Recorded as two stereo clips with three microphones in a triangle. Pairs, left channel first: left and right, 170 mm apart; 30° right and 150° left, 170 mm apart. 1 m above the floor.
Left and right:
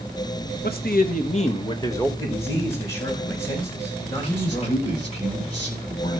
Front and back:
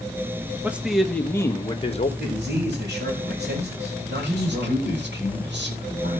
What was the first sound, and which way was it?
A man speaking, 70° left.